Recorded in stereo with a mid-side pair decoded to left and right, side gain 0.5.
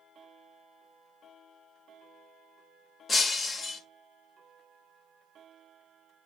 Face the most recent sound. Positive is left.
turn(degrees=40)